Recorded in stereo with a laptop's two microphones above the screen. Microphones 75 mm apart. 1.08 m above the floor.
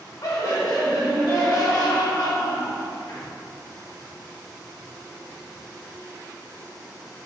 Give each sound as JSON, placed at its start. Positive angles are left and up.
{"t": 0.2, "sound": "laughter", "side_deg": 50, "distance_m": 1.4}